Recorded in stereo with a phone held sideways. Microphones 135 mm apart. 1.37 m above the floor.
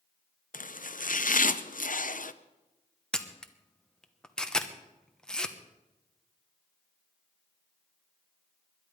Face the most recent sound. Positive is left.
turn(degrees=5)  # may be behind; listen again after turning